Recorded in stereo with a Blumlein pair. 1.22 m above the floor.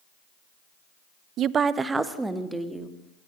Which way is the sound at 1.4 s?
35° right.